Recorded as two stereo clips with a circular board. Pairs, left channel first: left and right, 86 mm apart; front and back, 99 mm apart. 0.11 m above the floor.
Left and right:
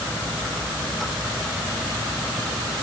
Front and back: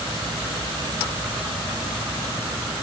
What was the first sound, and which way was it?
Only background noise.